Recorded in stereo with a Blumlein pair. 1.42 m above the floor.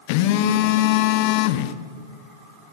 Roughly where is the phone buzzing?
Ahead left.